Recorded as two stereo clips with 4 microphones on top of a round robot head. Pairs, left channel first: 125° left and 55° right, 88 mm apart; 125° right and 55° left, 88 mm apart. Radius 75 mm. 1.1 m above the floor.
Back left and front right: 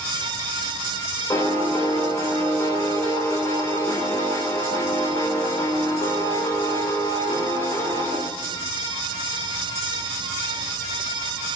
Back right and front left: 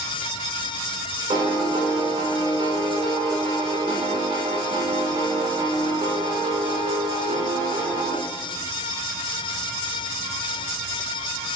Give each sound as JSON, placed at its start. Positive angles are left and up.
{"t": 1.3, "sound": "a piano", "azimuth_deg": 70, "distance_m": 1.7}